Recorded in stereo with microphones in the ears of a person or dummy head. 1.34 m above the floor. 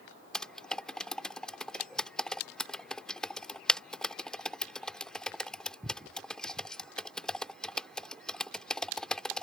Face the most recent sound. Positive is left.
turn(degrees=0)  # may be behind; listen again after turning